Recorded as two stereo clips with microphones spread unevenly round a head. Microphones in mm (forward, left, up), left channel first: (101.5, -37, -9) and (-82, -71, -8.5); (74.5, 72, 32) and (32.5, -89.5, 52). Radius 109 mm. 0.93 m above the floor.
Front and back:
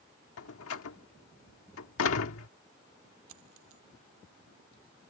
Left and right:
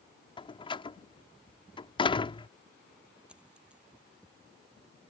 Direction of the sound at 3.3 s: 170° left.